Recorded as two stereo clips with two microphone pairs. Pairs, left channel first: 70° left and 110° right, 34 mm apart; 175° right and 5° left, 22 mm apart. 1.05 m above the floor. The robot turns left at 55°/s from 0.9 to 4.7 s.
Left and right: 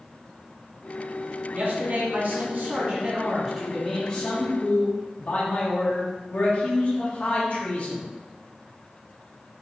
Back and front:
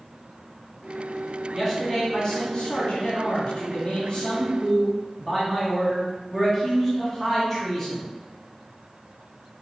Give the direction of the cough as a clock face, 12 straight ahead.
I don't hear a cough.